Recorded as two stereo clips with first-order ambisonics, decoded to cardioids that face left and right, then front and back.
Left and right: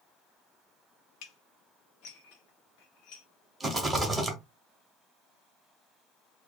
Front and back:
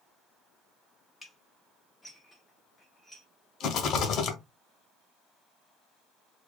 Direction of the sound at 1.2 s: 85° left.